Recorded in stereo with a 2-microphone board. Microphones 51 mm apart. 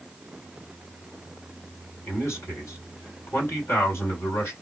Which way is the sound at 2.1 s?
60° left (ahead or behind).